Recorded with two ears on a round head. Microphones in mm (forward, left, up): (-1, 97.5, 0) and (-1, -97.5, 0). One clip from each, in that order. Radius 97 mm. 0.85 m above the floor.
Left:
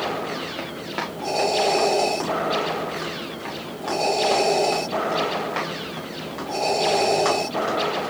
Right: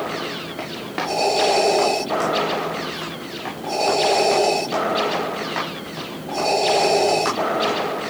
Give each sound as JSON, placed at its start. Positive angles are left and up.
{"t": 0.6, "sound": "running footsteps", "side_deg": 10, "distance_m": 5.0}